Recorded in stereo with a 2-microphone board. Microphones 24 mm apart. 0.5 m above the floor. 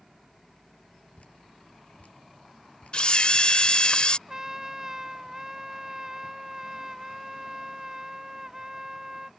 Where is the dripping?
80° left.